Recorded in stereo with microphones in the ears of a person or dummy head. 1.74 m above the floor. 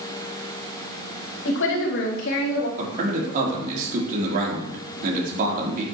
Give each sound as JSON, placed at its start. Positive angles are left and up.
{"t": 1.4, "sound": "a woman speaking", "side_deg": 80, "distance_m": 2.0}
{"t": 2.8, "sound": "a man speaking", "side_deg": -50, "distance_m": 3.5}